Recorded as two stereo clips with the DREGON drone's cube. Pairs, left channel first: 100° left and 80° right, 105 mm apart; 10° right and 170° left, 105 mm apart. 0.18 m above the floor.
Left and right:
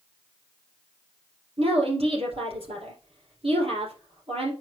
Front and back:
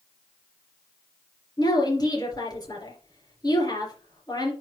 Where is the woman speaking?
60° right, 3.5 m.